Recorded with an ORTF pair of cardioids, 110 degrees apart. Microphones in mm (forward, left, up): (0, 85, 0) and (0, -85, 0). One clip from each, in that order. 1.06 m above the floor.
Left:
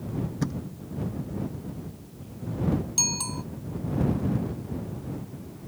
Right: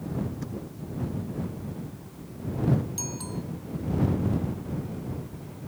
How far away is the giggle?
No giggle in this recording.